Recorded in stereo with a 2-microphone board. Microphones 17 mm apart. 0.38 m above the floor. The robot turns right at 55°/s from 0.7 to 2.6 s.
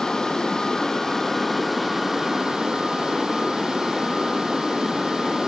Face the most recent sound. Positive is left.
turn(degrees=-125)